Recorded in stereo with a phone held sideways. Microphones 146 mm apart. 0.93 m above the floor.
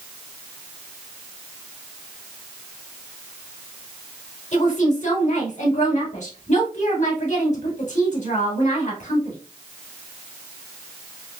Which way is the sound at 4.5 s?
55° left (ahead or behind).